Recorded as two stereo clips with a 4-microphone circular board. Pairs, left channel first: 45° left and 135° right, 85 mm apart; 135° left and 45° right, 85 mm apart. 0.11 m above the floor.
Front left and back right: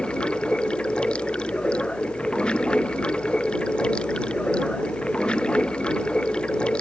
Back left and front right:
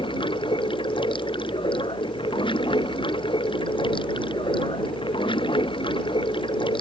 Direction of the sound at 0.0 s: 125° left.